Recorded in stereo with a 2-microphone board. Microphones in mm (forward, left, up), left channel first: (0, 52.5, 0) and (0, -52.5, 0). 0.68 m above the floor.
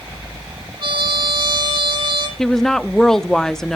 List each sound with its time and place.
0.8 s a trumpet: 50° right (ahead or behind), 5.5 m
2.4 s a woman speaking: 5° left (ahead or behind), 0.9 m